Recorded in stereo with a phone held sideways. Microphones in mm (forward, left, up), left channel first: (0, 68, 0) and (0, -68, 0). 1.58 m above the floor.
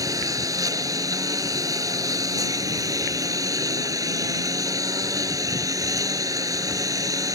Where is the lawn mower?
25° right (ahead or behind).